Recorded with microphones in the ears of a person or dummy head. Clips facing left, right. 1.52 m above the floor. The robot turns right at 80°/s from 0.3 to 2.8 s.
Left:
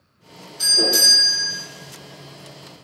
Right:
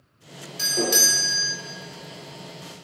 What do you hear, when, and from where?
0.6 s a doorbell: 95° right, 1.3 m; by 1.5 s 15° right, 1.3 m